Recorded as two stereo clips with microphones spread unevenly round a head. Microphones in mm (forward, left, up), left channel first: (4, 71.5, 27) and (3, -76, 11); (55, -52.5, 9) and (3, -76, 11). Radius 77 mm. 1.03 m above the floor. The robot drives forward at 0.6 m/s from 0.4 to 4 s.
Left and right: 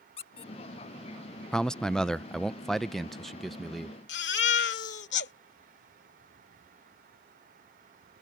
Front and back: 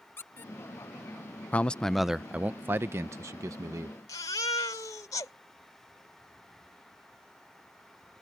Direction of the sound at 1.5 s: 5° right.